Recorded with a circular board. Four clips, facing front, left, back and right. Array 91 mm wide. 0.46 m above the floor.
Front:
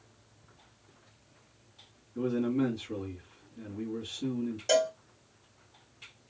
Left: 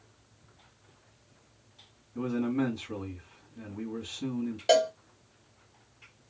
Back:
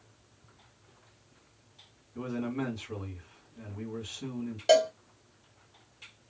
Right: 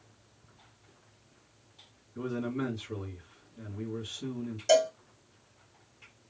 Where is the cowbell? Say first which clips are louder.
Even, back 4 dB; 125° left, 1.0 m.